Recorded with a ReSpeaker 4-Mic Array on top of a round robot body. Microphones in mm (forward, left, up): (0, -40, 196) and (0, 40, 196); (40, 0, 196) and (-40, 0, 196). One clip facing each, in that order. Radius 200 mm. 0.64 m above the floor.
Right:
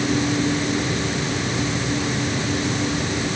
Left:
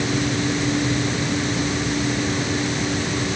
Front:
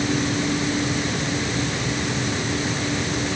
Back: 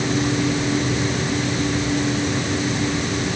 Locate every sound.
Only background noise.